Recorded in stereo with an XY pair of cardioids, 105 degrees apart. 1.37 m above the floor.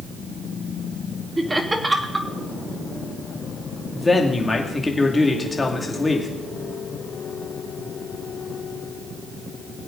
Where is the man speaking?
20° left, 2.5 m.